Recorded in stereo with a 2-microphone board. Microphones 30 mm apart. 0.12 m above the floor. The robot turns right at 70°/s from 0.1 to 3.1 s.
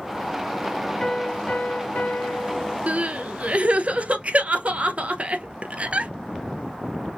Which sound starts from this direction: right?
Crying, at 2.9 s.